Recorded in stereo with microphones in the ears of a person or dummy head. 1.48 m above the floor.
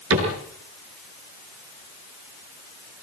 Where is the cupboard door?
75° right (ahead or behind), 7.5 m.